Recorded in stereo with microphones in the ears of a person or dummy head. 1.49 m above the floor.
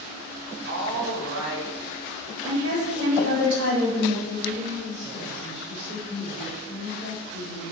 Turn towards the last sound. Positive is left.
turn(degrees=-70)  # may be behind; listen again after turning